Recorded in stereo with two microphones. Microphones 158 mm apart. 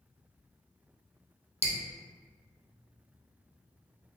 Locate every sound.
1.6 s dripping: 40° left (ahead or behind), 0.6 m